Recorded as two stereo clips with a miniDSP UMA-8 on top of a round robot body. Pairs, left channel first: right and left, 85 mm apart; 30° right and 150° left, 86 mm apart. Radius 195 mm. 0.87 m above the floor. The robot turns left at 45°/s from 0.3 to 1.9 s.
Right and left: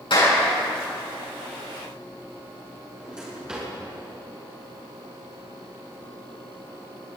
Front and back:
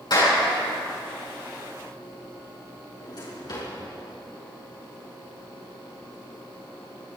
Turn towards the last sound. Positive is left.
turn(degrees=10)